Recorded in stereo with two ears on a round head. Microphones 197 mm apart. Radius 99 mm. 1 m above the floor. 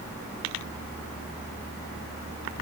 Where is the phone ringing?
No phone ringing in this recording.